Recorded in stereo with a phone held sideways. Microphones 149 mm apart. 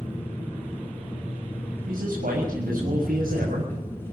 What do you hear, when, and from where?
0.0 s an engine running: 15° left (ahead or behind), 9.5 m
1.9 s a man speaking: 75° right (ahead or behind), 6 m